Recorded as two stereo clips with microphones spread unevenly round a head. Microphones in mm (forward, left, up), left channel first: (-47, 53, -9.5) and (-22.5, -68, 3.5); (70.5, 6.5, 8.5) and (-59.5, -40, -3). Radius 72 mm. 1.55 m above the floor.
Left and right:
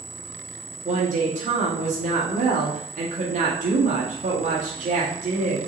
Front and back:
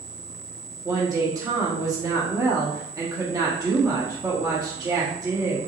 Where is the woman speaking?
95° right, 1.3 m.